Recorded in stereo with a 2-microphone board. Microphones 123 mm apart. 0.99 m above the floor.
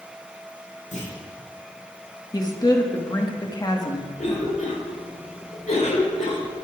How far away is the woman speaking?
About 1.3 m.